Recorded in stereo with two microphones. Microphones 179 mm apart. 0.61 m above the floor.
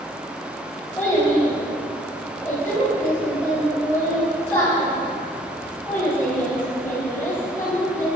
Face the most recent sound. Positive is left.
turn(degrees=10)  # may be behind; listen again after turning